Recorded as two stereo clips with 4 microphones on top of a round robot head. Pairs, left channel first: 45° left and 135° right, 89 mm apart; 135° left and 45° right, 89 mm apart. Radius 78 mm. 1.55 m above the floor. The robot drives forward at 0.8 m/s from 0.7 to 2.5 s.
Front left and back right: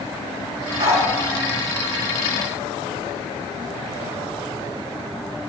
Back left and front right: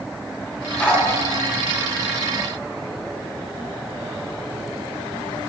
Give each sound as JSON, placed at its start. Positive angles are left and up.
{"t": 0.8, "sound": "a dog barking", "azimuth_deg": -150, "distance_m": 4.5}